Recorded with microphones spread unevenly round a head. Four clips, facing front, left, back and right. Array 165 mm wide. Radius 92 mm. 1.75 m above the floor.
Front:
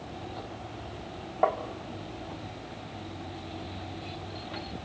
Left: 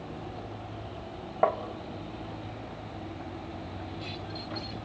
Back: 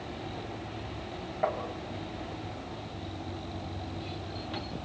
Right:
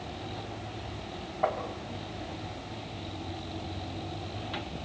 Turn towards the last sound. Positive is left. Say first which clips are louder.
# left 4 dB, front 4 dB
turn(degrees=85)